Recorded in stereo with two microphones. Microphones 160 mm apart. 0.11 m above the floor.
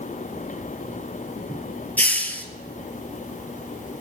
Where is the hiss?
10° left (ahead or behind), 0.5 m.